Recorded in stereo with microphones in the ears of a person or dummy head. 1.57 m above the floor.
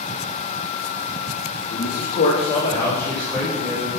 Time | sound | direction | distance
1.7 | a man speaking | 60° left (ahead or behind) | 1.2 m